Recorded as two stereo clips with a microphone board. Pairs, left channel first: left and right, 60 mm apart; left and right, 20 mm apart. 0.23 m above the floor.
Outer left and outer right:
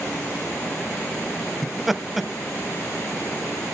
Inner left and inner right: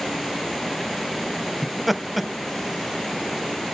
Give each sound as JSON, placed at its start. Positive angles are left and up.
{"t": 1.6, "sound": "laughter", "side_deg": 0, "distance_m": 1.1}